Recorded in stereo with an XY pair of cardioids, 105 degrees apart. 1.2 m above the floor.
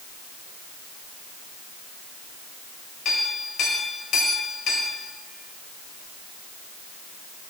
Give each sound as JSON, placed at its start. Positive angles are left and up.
{"t": 3.0, "sound": "a clink", "azimuth_deg": 70, "distance_m": 4.0}